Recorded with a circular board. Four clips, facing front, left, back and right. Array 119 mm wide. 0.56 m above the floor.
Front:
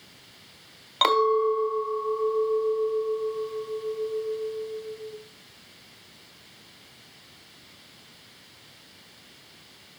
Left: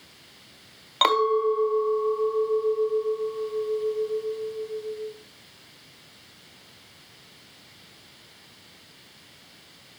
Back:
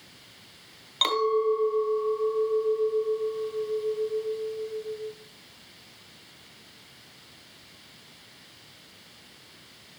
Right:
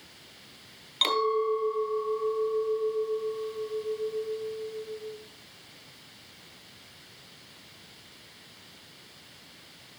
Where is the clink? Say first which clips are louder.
Left 5 dB, front 3 dB; 55° left, 1.3 m.